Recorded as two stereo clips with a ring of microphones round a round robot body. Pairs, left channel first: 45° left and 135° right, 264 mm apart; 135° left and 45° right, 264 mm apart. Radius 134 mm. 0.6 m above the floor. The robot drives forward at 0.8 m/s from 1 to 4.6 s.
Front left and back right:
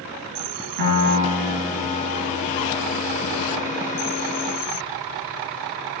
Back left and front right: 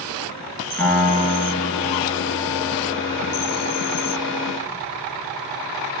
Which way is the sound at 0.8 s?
140° right.